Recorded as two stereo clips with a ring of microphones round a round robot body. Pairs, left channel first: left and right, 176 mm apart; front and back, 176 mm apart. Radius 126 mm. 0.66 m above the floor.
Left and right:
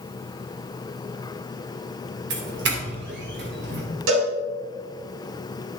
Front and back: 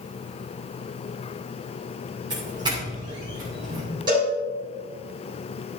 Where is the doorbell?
110° right, 3 m.